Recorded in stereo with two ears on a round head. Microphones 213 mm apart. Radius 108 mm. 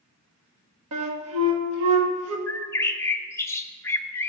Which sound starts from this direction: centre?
A bird, at 2.5 s.